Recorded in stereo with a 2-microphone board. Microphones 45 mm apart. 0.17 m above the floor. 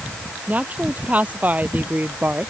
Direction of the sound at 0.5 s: 30° right (ahead or behind).